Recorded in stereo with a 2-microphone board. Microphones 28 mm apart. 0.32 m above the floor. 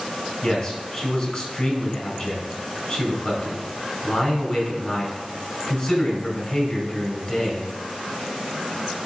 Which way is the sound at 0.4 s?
40° left (ahead or behind).